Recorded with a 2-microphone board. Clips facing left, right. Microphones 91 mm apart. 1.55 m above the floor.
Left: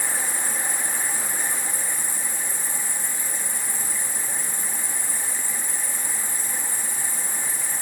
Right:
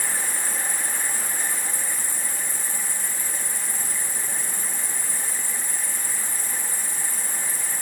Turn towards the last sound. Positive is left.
turn(degrees=-15)  # may be behind; listen again after turning